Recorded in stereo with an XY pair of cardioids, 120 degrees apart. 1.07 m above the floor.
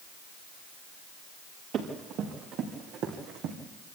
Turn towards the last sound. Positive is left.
turn(degrees=-75)